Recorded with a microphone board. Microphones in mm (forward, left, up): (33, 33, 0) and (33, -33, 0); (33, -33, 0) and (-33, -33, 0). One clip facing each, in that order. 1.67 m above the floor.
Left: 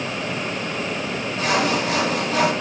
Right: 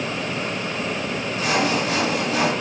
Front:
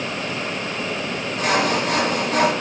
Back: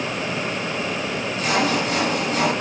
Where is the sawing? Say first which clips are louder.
Left 1 dB, front 2 dB; 30° left, 3.5 m.